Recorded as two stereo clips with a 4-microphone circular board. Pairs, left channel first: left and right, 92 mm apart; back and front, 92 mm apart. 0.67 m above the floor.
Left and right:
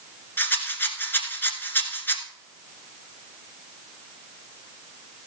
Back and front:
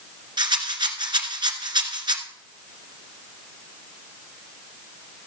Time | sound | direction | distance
0.4 | a rattle | 25° left | 1.4 m